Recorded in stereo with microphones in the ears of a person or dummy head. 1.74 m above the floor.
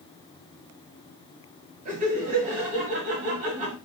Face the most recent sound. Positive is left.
turn(degrees=-45)  # may be behind; listen again after turning